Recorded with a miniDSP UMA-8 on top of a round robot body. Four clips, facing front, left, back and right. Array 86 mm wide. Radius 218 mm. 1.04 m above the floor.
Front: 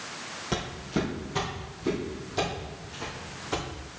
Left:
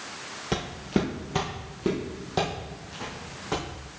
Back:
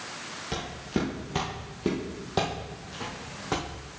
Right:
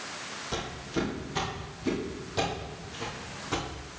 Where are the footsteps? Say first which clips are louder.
Left 6 dB, front 1 dB; 80° left, 1.5 m; by 3.6 s 155° left, 4 m.